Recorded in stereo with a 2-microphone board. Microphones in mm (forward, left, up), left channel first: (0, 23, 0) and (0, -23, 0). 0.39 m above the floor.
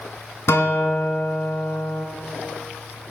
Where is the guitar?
70° left (ahead or behind), 0.9 m.